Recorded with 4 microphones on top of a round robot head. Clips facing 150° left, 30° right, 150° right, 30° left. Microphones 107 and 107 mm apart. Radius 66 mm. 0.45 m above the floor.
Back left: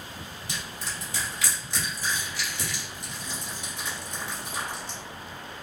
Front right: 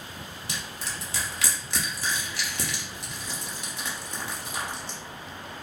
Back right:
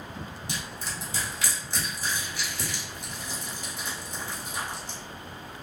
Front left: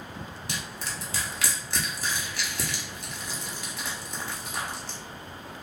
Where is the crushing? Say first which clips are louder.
Even, front left 1 dB; straight ahead, 0.7 m.